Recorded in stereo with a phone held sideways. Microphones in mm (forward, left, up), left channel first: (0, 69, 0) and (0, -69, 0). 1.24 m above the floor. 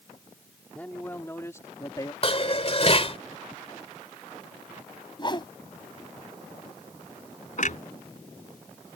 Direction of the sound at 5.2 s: 35° left (ahead or behind).